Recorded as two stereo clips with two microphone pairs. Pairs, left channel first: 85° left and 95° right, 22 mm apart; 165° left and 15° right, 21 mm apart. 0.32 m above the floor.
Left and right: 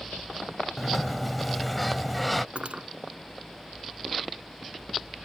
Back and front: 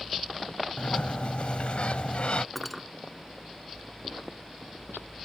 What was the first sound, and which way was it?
A sliding door, 165° left.